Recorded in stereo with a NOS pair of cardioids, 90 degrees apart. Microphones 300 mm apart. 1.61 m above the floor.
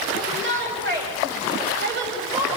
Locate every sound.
0.1 s a shout: 35° right, 10 m